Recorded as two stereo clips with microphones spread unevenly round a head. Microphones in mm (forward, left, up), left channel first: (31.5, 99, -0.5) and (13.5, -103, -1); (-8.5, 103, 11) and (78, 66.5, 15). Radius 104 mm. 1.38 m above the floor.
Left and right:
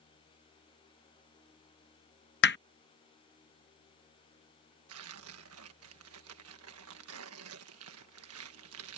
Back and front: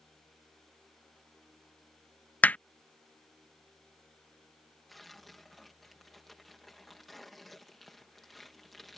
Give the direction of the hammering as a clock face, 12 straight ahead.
9 o'clock.